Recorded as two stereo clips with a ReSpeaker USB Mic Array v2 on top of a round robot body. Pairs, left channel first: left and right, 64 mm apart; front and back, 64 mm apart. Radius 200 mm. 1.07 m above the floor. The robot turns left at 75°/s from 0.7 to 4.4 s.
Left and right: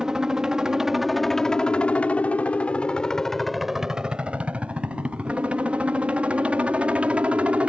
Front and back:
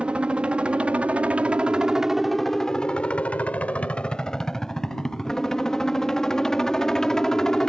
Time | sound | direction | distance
0.0 | a helicopter | 150° right | ?